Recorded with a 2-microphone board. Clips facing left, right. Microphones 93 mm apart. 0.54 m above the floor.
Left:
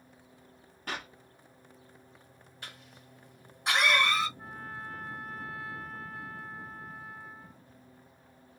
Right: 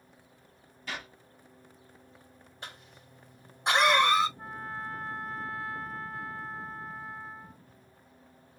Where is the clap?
55° left (ahead or behind), 1.7 m.